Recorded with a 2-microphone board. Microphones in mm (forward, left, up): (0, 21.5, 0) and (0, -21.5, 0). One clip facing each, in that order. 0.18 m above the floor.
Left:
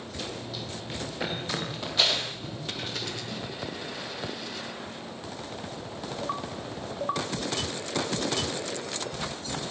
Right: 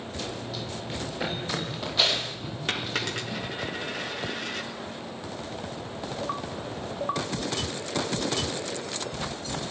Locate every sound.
0.2 s running footsteps: 5° left (ahead or behind), 9.5 m; by 3.4 s 5° right (ahead or behind), 11.5 m
2.7 s a dropped coin: 60° right (ahead or behind), 6.5 m